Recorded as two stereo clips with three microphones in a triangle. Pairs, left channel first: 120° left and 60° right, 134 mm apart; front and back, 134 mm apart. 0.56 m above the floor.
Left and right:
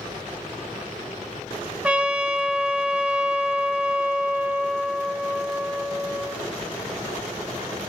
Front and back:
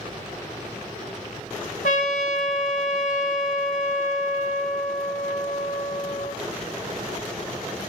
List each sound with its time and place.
1.8 s a trumpet: 20° left, 1.0 m